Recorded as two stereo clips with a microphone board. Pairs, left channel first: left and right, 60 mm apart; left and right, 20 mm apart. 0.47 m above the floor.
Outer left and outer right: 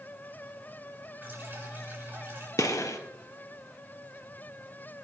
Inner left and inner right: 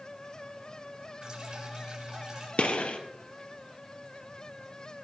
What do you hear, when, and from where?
1.2 s dripping: 35° right (ahead or behind), 6.5 m
2.6 s a gunshot: 65° left (ahead or behind), 1.9 m